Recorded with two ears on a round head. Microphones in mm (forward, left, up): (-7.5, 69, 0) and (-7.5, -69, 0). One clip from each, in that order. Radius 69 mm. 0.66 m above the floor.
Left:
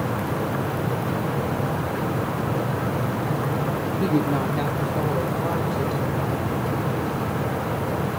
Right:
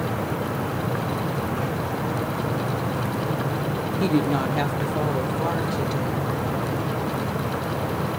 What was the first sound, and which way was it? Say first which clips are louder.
A woman speaking: right 1 dB; 35° right (ahead or behind).